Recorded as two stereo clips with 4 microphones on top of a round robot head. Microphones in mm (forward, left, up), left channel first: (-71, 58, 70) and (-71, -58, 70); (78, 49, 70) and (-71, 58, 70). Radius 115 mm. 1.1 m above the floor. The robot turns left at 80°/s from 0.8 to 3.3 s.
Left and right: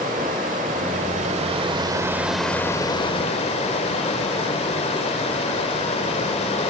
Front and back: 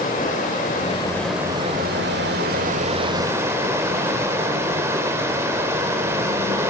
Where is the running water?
55° right, 1.2 m; by 6.7 s 105° left, 1.2 m.